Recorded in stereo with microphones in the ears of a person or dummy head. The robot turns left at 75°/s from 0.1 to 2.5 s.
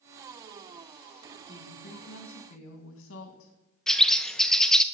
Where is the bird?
Centre (ahead or behind), 0.6 m.